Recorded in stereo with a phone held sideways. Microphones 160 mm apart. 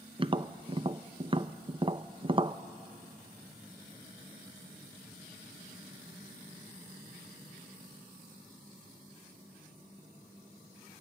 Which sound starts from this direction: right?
Tapping, at 0.2 s.